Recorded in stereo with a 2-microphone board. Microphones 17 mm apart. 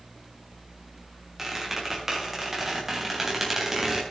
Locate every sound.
1.4 s a squeak: 20° right (ahead or behind), 4.5 m